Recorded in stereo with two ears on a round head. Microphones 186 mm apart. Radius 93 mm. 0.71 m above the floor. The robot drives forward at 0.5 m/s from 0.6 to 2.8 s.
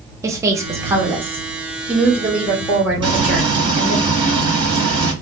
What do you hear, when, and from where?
0.2 s a woman speaking: 15° right (ahead or behind), 0.7 m; by 4.0 s 5° right (ahead or behind), 1.7 m
3.0 s frying: 25° right (ahead or behind), 1.3 m